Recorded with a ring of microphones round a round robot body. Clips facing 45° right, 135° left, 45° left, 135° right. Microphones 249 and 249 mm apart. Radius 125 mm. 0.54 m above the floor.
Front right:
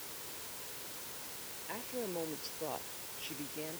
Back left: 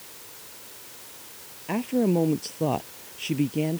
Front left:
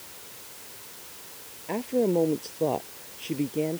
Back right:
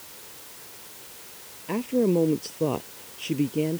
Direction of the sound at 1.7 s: 150° left.